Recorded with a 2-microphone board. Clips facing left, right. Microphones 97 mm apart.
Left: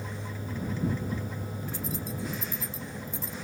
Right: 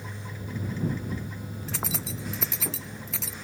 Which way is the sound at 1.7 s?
75° right (ahead or behind).